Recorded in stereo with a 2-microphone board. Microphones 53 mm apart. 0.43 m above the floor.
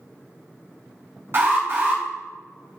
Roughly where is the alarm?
Right.